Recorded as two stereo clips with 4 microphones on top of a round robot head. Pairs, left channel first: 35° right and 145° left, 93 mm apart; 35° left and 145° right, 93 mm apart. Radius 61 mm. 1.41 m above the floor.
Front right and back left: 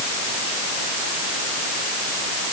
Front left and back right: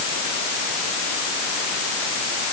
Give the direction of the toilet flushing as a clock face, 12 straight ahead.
No toilet flushing in this recording.